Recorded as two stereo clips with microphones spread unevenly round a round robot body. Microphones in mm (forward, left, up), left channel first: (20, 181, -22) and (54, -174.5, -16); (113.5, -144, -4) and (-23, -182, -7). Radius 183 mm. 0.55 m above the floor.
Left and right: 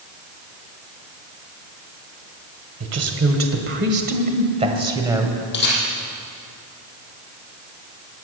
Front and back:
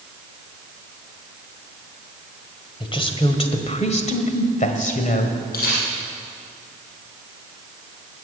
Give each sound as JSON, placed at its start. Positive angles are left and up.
{"t": 2.8, "sound": "a woman speaking", "azimuth_deg": -40, "distance_m": 2.5}
{"t": 5.5, "sound": "a camera shutter", "azimuth_deg": 35, "distance_m": 5.0}